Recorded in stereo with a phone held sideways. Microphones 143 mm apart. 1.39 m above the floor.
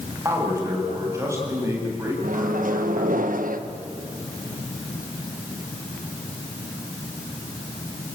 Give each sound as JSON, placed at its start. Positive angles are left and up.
{"t": 0.2, "sound": "a man speaking", "side_deg": -20, "distance_m": 8.0}
{"t": 2.2, "sound": "a microwave", "side_deg": -70, "distance_m": 1.3}